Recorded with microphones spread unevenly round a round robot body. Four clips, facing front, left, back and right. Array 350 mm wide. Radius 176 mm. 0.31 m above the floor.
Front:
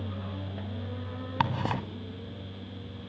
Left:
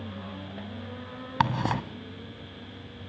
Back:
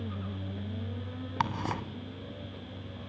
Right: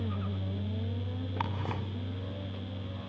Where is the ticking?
60° left, 1.8 m.